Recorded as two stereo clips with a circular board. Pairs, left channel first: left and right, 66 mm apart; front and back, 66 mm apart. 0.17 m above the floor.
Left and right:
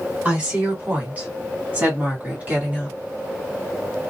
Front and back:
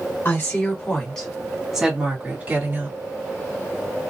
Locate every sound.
0.2 s a woman speaking: 30° right, 1.8 m; by 3.0 s 150° right, 1.9 m